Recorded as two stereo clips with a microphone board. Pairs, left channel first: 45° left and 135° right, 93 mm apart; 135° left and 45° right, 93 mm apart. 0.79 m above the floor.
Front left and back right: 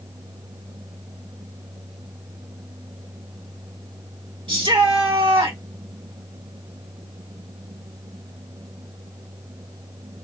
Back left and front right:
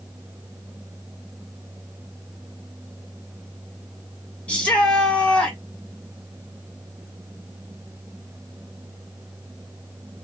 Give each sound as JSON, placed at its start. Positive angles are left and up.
{"t": 4.5, "sound": "a shout", "azimuth_deg": -150, "distance_m": 1.5}